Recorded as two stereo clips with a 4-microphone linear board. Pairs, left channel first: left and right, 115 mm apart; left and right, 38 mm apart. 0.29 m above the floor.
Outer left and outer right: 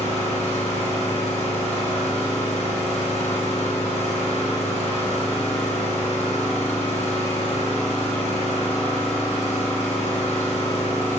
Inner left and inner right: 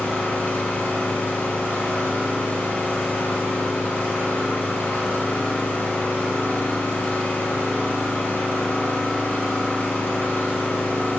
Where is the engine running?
65° left (ahead or behind), 2.5 m.